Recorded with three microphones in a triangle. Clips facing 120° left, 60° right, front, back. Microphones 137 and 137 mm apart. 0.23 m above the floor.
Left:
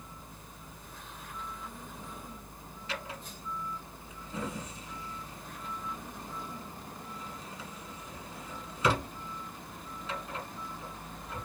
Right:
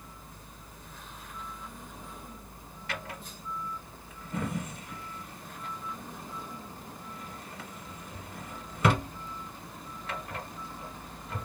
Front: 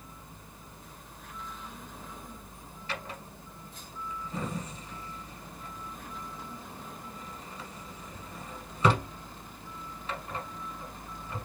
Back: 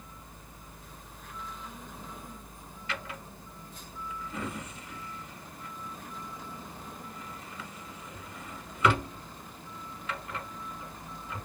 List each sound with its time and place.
2.9 s a drawer: 50° right, 1.1 m